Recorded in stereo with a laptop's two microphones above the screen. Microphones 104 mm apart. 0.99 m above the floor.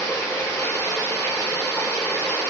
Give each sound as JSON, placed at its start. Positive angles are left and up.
{"t": 0.0, "sound": "running water", "side_deg": 30, "distance_m": 0.7}